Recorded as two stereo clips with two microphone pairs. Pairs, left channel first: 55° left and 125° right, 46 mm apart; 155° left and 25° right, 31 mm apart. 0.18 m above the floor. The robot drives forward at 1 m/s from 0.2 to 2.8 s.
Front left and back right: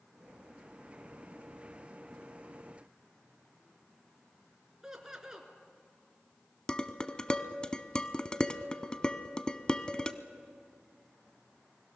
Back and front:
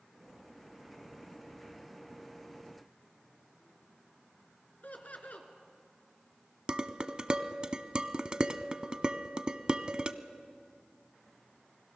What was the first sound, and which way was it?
Laughter, 165° left.